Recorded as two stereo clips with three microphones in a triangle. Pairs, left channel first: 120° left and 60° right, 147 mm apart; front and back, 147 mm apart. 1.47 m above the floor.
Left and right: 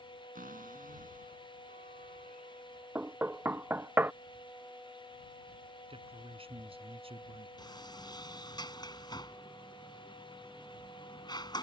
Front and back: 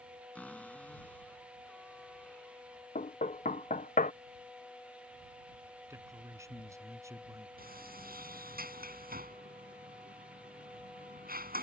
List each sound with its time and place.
0.3 s a cupboard door: 80° right
3.0 s knocking: 15° left
5.9 s a man speaking: 110° right
7.6 s a sliding door: straight behind